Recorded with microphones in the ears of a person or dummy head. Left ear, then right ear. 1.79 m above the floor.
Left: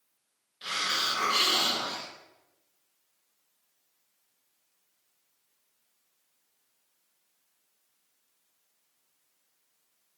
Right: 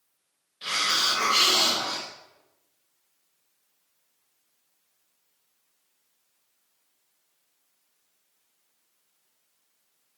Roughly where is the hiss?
Centre.